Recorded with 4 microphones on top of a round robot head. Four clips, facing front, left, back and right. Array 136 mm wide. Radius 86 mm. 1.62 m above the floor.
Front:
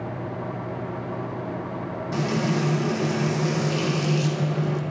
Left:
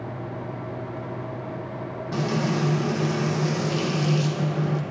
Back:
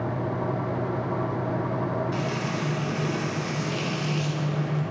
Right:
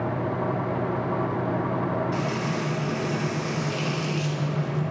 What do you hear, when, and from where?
2.1 s frying: 50° left, 1.3 m